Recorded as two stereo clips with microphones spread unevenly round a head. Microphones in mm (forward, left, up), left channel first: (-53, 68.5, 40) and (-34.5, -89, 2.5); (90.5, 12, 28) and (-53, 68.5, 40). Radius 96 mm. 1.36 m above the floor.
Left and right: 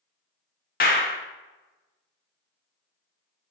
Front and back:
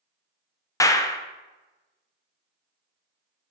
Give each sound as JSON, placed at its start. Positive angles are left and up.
{"t": 0.8, "sound": "a clap", "azimuth_deg": 50, "distance_m": 0.7}